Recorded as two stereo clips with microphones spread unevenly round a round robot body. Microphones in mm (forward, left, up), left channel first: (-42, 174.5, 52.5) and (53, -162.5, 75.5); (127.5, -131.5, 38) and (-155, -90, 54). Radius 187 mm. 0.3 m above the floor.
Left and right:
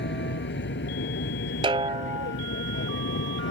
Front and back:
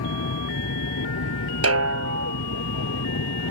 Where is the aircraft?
45° left; by 3.5 s 50° left.